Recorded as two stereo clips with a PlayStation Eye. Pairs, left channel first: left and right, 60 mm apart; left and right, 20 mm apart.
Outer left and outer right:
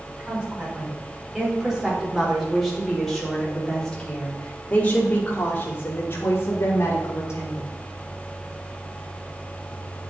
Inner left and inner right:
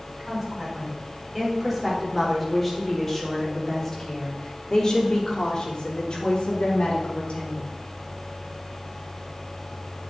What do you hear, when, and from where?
0.2 s a woman speaking: 20° right (ahead or behind), 5 m; by 7.7 s 60° left (ahead or behind), 4 m